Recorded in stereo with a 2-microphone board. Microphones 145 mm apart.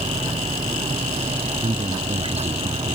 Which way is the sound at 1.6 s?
40° right (ahead or behind).